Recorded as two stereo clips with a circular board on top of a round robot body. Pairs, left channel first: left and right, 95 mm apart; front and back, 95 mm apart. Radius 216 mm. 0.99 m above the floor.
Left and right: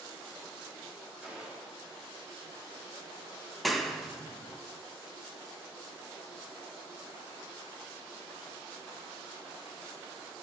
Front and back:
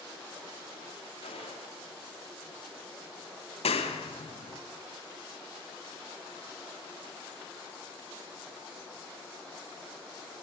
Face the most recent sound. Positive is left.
turn(degrees=0)